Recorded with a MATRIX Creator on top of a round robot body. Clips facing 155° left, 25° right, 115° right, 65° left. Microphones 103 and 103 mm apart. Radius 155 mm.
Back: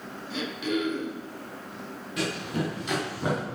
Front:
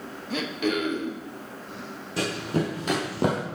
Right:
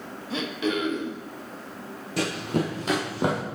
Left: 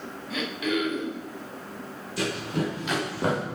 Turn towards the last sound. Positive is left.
turn(degrees=-30)